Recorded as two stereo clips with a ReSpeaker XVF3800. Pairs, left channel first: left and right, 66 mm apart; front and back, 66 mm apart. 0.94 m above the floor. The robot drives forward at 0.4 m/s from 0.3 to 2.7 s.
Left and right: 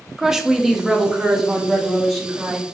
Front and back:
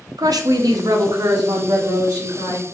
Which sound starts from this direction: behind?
A woman speaking, at 0.2 s.